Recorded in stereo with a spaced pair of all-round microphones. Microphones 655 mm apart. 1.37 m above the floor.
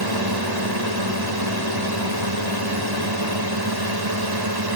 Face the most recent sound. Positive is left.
turn(degrees=-35)  # may be behind; listen again after turning